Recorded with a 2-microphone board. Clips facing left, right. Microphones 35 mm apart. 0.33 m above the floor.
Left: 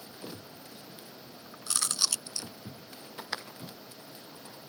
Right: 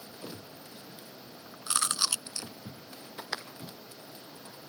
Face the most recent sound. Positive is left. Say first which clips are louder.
# right 2 dB
turn(degrees=-30)  # may be behind; listen again after turning